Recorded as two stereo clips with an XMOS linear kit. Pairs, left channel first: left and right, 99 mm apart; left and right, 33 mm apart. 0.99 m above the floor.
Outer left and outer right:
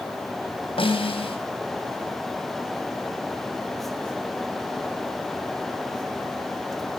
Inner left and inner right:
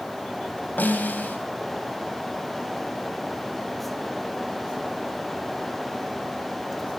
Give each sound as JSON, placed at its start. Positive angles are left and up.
{"t": 0.8, "sound": "a snare drum", "side_deg": 65, "distance_m": 3.5}